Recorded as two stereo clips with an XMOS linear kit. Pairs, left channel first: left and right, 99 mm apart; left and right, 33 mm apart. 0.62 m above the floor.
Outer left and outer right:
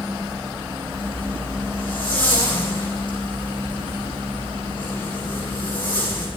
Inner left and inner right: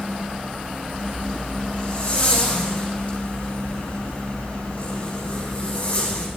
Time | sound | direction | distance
0.9 | a zipper | 50° left (ahead or behind) | 9.5 m